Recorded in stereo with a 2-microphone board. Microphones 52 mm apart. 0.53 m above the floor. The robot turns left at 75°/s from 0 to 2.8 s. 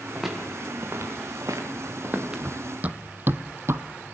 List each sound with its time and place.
0.1 s footsteps: 5° left (ahead or behind), 5.5 m; by 2.4 s 10° right (ahead or behind), 3 m
2.4 s running footsteps: 45° right (ahead or behind), 1.3 m; by 3.8 s 60° right (ahead or behind), 0.9 m